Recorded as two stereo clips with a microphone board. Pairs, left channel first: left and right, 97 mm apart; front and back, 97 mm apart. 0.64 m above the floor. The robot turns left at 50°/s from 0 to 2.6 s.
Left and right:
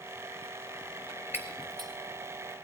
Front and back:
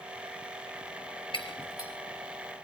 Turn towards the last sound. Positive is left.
turn(degrees=-85)